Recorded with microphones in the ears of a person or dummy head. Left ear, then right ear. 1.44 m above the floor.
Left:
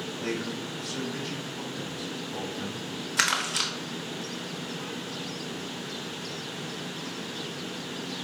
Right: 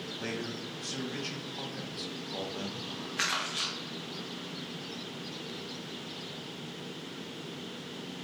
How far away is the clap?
No clap in this recording.